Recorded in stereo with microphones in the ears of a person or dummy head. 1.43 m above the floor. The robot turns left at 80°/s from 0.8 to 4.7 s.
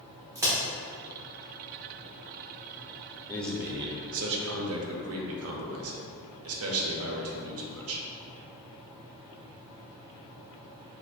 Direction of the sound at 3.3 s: 15° left.